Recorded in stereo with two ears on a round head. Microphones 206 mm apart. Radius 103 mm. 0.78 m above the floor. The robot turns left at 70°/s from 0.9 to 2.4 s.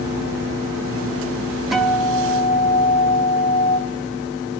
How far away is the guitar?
About 0.7 m.